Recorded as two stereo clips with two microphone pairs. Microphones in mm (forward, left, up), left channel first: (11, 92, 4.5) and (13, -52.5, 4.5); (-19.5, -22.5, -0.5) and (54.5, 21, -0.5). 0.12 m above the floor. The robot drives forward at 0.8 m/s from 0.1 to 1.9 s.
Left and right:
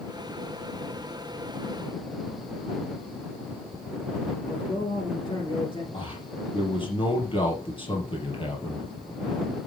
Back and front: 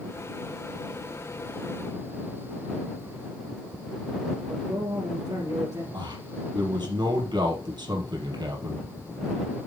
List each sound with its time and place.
4.5 s a man speaking: 45° left, 1.9 m
5.9 s a man speaking: 45° left, 3.5 m